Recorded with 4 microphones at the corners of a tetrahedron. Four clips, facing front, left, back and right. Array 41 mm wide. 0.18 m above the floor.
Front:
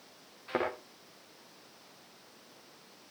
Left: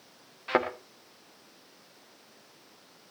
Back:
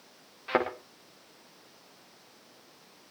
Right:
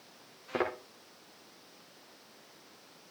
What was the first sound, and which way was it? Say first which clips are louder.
A thud: left 6 dB, back 5 dB; 120° left.